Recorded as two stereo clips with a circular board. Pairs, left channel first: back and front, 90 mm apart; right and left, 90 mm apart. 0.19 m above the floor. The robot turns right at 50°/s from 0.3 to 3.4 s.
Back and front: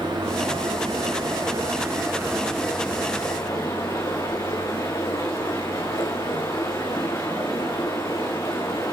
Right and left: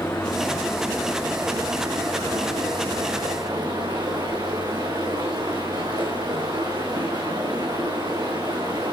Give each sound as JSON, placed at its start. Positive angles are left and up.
{"t": 0.0, "sound": "running water", "azimuth_deg": -25, "distance_m": 7.5}